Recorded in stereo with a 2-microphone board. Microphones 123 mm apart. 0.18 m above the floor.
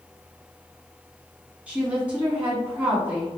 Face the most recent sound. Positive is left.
turn(degrees=-10)  # may be behind; listen again after turning